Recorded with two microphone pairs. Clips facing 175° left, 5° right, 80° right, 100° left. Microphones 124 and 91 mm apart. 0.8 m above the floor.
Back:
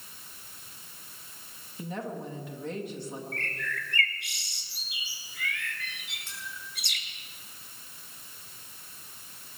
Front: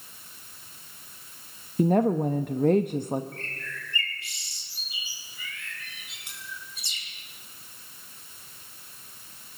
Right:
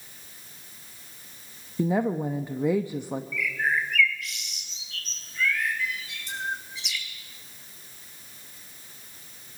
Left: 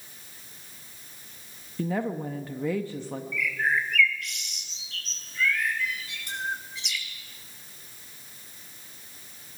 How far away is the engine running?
I don't hear an engine running.